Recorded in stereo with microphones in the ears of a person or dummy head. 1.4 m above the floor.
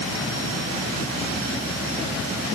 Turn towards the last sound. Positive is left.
No sound to turn to.